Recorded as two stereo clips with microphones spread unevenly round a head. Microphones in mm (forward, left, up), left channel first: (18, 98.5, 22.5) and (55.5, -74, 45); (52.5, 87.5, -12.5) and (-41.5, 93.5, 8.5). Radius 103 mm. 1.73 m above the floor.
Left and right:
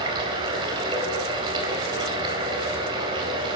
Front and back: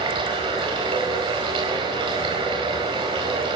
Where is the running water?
145° right, 4 m.